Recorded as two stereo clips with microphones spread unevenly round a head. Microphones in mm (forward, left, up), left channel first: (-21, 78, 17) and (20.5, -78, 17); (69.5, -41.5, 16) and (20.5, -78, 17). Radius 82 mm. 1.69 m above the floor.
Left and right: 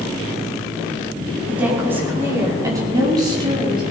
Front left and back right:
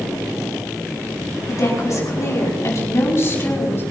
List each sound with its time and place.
1.5 s a woman speaking: 5° left, 5 m; by 3.8 s 10° right, 5.5 m